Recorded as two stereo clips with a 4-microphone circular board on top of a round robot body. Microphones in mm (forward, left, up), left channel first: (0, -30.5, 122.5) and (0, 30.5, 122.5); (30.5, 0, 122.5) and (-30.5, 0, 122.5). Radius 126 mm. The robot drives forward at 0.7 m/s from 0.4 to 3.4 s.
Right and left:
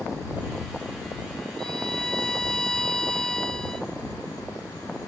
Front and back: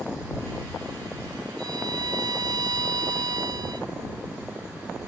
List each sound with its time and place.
1.6 s a violin: 170° right